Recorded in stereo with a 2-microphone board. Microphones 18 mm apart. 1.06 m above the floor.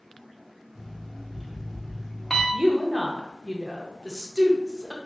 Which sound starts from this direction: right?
A woman speaking, at 2.5 s.